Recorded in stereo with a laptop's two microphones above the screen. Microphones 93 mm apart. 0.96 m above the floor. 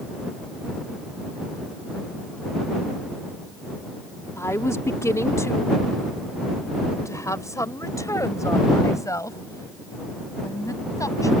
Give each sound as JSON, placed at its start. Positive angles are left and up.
{"t": 4.4, "sound": "a woman speaking", "side_deg": 30}